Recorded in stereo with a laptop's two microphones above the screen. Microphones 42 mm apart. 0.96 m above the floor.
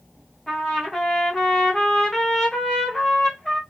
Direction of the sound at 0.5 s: 10° left (ahead or behind).